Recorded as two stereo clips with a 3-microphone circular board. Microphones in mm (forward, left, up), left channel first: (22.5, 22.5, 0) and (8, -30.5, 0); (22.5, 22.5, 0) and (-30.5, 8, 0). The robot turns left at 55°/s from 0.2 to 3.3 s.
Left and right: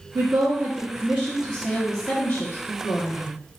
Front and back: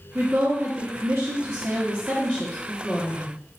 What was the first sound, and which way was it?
A woman speaking, 115° right.